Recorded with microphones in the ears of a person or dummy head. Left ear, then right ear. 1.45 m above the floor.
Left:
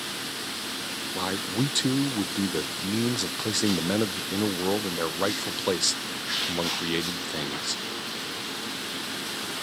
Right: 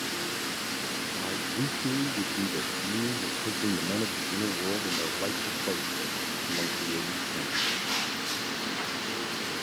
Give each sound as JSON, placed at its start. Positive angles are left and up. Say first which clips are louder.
{"t": 1.1, "sound": "a man speaking", "louder": "left 3 dB", "side_deg": 60}